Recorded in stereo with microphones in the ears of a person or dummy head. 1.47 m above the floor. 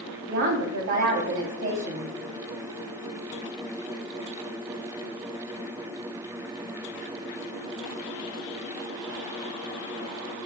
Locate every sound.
0.3 s a woman speaking: 60° right (ahead or behind), 3.5 m